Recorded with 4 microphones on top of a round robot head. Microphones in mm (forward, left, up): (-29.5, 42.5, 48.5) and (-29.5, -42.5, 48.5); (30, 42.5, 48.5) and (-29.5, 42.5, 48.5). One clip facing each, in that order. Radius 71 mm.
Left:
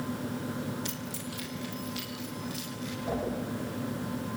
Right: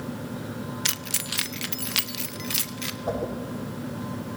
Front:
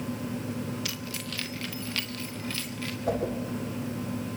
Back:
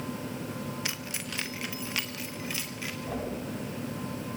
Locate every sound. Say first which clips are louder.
0.8 s keys jangling: right 2 dB, even; 110° right, 0.8 m; by 3.0 s 100° right, 1.9 m
3.1 s a whoosh: right 4 dB, front 7 dB; 35° right, 8.5 m